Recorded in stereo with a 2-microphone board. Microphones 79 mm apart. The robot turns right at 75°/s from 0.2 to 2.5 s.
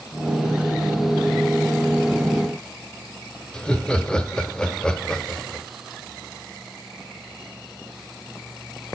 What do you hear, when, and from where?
3.5 s laughter: 10° left (ahead or behind), 0.9 m